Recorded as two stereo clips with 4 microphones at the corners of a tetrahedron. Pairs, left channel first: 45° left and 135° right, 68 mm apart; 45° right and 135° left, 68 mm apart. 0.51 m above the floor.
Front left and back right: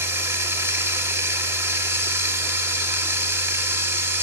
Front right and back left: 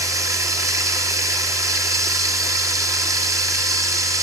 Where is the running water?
170° left, 1.1 m.